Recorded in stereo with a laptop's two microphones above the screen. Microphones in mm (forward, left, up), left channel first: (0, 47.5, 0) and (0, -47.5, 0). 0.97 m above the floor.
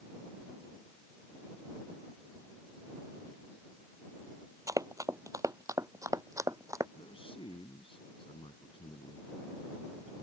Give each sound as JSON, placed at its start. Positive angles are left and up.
{"t": 4.7, "sound": "running footsteps", "side_deg": -35}
{"t": 7.0, "sound": "a man speaking", "side_deg": 75}